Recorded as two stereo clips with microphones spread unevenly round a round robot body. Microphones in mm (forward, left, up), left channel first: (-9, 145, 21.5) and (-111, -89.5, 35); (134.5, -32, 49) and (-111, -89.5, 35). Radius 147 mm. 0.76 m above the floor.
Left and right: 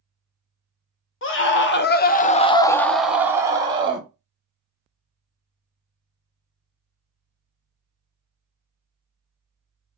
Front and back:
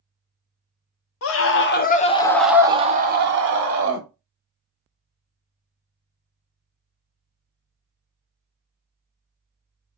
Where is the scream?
35° left, 0.8 m; by 4.1 s 175° left, 1.0 m.